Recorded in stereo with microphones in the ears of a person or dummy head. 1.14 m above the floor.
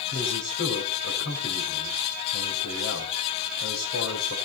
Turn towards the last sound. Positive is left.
turn(degrees=70)  # may be behind; listen again after turning